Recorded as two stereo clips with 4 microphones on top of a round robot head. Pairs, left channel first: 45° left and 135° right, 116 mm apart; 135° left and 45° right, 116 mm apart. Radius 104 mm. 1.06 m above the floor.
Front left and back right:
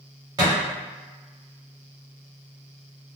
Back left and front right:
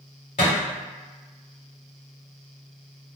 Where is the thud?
170° left, 1.1 m.